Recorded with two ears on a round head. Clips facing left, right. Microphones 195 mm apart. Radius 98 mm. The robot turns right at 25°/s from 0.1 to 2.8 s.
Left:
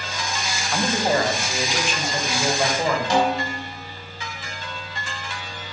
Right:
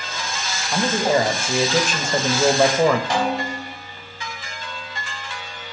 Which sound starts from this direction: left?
A snare drum, at 3.1 s.